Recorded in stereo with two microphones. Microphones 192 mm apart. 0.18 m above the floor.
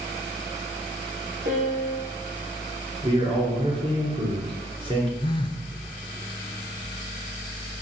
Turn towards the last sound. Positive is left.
turn(degrees=25)  # may be behind; listen again after turning